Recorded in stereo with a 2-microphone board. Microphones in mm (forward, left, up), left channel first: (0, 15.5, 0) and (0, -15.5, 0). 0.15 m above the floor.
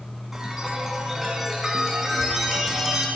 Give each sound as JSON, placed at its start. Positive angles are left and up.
{"t": 0.3, "sound": "a chime", "side_deg": -15, "distance_m": 1.2}